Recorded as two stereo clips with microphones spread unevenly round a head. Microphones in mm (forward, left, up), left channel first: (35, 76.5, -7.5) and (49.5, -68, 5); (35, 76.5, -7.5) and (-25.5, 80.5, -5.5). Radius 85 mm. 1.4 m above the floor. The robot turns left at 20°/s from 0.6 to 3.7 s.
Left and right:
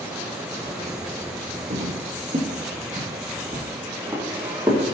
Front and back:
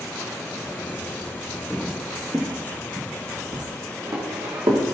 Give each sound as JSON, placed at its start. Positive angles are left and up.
{"t": 1.7, "sound": "footsteps", "azimuth_deg": -85, "distance_m": 2.0}